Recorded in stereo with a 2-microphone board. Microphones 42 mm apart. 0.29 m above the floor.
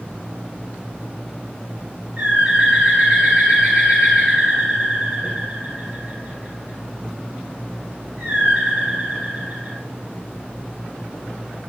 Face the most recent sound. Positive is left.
turn(degrees=-40)  # may be behind; listen again after turning